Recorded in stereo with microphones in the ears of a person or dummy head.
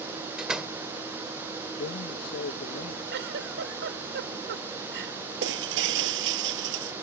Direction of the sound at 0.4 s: Centre (ahead or behind).